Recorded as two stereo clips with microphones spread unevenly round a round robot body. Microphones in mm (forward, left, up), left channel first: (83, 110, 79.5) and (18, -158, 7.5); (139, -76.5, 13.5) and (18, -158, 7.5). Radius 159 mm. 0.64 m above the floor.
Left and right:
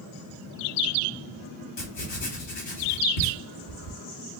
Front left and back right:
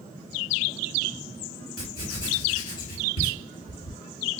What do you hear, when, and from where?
1.8 s writing: 70° left, 1.6 m